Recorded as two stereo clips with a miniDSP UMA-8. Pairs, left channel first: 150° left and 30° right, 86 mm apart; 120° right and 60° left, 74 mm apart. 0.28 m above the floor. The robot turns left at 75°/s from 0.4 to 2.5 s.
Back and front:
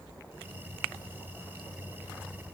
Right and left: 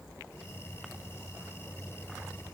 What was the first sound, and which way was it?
Only background noise.